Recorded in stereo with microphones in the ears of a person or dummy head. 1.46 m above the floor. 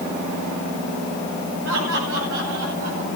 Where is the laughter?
80° right, 8 m; by 3.1 s 85° right, 9.5 m.